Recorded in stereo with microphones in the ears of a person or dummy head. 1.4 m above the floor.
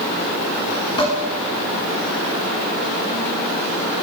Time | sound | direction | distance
1.0 | dishes clattering | 15° left (ahead or behind) | 2.5 m